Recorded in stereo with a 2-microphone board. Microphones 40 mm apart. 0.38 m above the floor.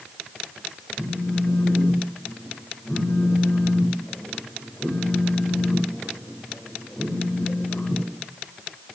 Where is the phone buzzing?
35° left (ahead or behind), 1.7 m.